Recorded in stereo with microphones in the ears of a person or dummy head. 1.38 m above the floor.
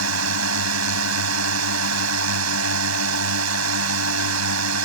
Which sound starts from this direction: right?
A drone, at 0.0 s.